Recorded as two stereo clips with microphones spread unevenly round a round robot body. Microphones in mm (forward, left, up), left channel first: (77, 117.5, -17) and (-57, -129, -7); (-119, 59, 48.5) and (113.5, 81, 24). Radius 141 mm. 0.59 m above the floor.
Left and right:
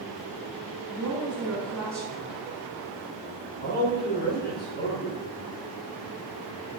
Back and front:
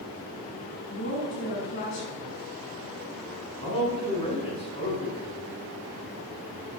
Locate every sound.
0.9 s a woman speaking: 150° left, 6 m
3.6 s a man speaking: 120° left, 6 m